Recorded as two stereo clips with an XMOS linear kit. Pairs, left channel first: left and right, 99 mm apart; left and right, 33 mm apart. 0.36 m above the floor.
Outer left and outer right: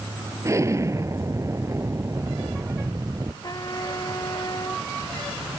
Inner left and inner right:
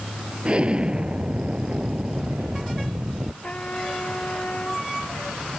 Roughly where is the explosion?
Right.